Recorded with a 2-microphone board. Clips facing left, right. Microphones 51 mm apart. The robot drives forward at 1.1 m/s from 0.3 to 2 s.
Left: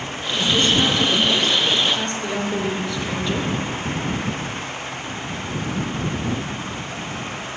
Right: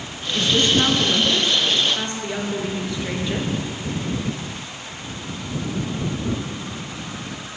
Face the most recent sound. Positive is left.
turn(degrees=-15)  # may be behind; listen again after turning